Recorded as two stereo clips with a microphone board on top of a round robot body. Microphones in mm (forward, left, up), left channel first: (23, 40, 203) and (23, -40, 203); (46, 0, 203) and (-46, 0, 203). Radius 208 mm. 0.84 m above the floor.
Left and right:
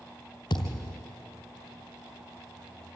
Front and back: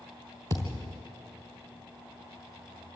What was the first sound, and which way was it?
A thud, 130° left.